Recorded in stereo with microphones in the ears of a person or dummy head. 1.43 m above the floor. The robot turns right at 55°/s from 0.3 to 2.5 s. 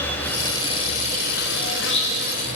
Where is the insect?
15° left, 1.6 m; by 2.6 s 135° left, 1.6 m.